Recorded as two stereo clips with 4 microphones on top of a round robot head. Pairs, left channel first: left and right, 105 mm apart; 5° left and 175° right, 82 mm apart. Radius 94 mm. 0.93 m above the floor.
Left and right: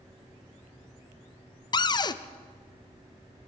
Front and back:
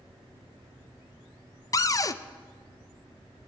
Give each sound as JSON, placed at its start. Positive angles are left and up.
{"t": 1.7, "sound": "a cupboard door", "azimuth_deg": 50, "distance_m": 0.6}